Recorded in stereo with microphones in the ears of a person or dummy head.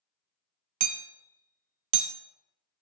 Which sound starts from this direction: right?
Hammering, at 0.8 s.